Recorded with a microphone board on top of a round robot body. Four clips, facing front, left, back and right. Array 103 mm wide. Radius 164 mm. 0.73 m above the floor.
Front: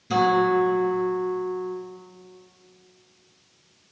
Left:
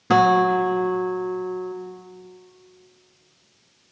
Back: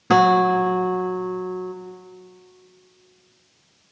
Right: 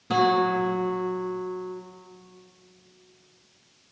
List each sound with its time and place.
0.1 s a guitar: 150° left, 0.7 m